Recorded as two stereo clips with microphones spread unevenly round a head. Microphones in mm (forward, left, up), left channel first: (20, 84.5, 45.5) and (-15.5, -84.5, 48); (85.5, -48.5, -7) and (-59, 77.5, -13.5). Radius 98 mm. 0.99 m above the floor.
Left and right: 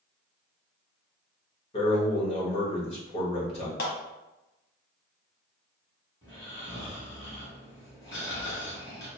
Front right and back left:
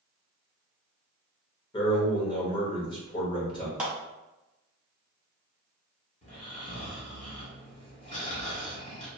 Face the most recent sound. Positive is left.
turn(degrees=10)